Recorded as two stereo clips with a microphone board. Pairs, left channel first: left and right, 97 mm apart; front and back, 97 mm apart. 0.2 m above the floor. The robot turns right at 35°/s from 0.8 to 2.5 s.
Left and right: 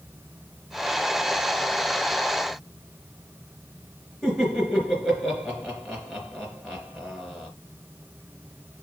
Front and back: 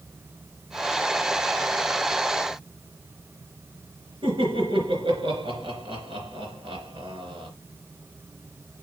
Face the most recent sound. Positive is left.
turn(degrees=175)